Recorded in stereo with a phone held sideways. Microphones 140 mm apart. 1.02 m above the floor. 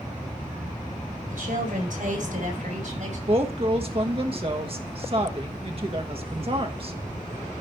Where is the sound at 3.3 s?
40° right (ahead or behind), 1.3 m.